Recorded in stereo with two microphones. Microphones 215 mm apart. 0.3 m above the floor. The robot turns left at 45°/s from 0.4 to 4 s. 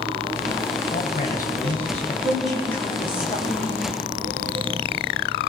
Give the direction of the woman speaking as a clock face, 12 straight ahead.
6 o'clock.